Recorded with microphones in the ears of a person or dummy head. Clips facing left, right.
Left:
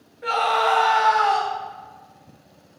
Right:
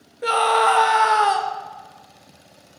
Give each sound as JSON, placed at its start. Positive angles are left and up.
{"t": 0.2, "sound": "a scream", "side_deg": -40, "distance_m": 0.6}